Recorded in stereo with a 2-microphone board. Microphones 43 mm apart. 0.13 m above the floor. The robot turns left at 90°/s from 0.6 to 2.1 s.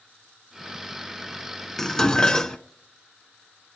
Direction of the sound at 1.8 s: 10° left (ahead or behind).